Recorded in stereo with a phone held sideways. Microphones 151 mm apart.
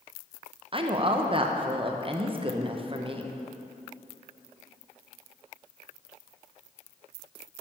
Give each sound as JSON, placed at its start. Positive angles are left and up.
{"t": 0.7, "sound": "a woman speaking", "side_deg": -35, "distance_m": 0.7}